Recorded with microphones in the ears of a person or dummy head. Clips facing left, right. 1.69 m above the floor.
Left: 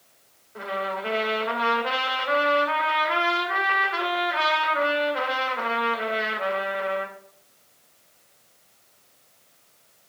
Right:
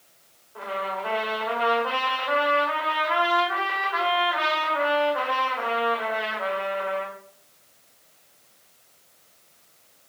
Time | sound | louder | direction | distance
0.6 | a trumpet | left 1 dB | 25° left (ahead or behind) | 2 m